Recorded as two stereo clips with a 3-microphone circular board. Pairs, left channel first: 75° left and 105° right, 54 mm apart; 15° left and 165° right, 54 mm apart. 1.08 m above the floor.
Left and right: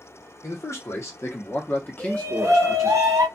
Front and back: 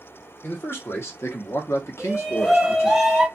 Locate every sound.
0.4 s a man speaking: 60° left, 1.3 m; by 3.0 s 15° right, 1.1 m
2.0 s a shout: 85° right, 1.1 m